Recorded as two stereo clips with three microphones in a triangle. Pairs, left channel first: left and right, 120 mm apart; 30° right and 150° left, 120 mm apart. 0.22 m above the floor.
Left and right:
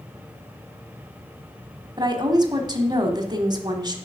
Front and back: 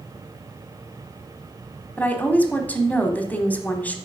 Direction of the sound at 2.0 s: 100° right.